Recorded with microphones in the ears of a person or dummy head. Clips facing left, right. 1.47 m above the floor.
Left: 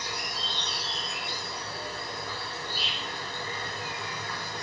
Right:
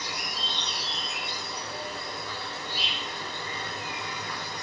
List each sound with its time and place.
0.0 s an insect: 20° right (ahead or behind), 2 m